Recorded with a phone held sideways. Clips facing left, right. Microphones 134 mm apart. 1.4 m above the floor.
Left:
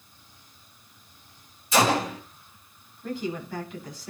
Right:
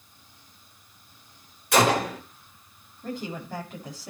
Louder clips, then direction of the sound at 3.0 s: Left 3 dB; 45° right (ahead or behind).